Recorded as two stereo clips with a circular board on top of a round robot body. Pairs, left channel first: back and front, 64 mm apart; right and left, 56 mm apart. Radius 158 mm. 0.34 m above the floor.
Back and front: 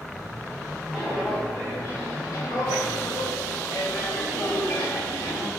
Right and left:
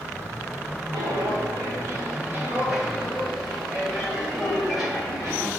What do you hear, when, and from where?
0.9 s footsteps: 85° left, 1.0 m; by 5.5 s 175° right, 3 m